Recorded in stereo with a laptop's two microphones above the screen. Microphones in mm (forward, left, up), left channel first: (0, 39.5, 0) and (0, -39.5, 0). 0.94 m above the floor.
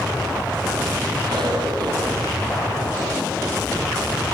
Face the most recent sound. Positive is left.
turn(degrees=-65)  # may be behind; listen again after turning